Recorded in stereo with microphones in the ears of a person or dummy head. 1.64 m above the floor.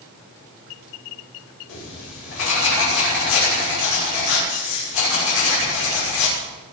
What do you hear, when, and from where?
1.7 s writing: 80° left, 5.5 m